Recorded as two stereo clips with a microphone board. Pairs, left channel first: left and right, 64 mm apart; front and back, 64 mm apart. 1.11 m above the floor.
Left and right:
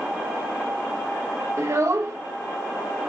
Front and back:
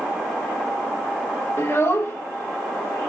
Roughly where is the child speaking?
Ahead right.